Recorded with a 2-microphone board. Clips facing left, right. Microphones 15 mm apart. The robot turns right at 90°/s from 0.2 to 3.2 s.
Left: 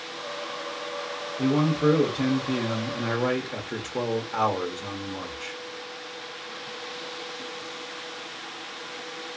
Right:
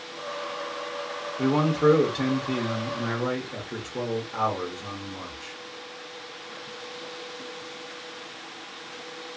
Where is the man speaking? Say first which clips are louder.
Right 1 dB; 95° right, 0.6 m; by 5.5 s 65° left, 0.6 m.